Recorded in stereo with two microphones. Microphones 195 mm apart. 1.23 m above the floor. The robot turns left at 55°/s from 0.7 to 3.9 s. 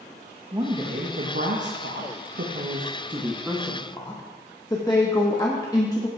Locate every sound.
0.5 s a woman speaking: 25° right (ahead or behind), 1.0 m; by 6.1 s 20° left (ahead or behind), 1.0 m